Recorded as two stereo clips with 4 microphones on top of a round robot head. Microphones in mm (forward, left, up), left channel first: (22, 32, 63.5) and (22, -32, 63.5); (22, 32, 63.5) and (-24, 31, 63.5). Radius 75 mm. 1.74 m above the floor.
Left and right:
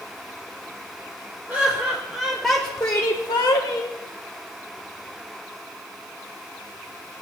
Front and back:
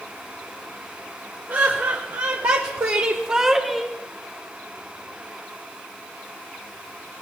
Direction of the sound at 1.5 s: 150° right.